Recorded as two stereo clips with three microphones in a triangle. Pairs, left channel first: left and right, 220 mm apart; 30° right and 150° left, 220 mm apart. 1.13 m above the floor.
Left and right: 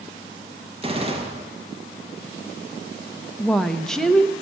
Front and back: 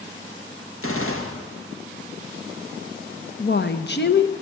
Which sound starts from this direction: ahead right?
A gunshot, at 0.8 s.